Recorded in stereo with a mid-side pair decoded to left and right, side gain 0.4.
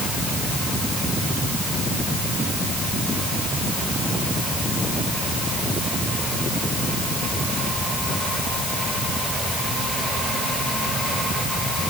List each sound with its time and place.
Only background noise.